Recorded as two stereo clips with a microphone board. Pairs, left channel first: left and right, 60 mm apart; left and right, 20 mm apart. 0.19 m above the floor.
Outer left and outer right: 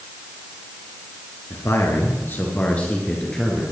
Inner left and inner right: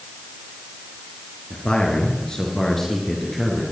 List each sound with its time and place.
1.5 s a man speaking: 55° left (ahead or behind), 3 m; by 3.6 s centre (ahead or behind), 3 m